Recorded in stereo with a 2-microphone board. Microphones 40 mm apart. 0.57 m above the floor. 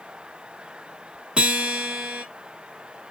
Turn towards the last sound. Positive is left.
turn(degrees=-25)  # may be behind; listen again after turning